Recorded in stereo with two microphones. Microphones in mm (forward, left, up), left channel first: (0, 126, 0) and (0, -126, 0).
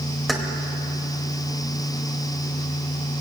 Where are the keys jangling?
Centre (ahead or behind), 2 m.